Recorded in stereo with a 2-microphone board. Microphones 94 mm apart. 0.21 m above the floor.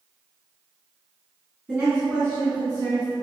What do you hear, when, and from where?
1.7 s a woman speaking: 5° right (ahead or behind), 1.8 m; by 3.1 s 40° left (ahead or behind), 1.8 m